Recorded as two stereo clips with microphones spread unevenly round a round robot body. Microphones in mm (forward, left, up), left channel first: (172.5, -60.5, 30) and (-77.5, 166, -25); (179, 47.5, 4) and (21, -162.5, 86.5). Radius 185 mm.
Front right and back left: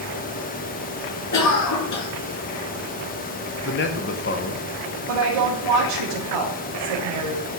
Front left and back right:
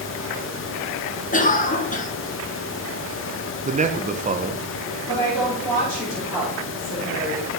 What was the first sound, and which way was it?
A cough, straight ahead.